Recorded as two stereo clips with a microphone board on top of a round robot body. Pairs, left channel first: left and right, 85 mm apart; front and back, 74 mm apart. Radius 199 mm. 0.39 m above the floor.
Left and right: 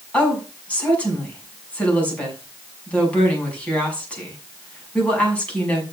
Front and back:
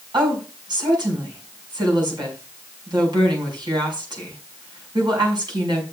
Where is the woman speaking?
165° left, 6 m.